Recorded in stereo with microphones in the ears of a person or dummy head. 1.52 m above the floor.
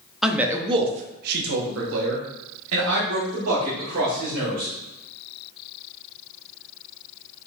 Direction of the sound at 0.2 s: Centre (ahead or behind).